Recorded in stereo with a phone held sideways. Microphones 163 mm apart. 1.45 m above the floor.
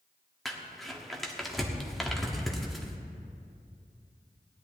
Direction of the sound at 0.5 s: Centre (ahead or behind).